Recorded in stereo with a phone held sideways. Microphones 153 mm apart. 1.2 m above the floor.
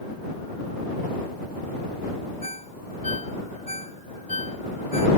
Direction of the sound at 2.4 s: 50° left (ahead or behind).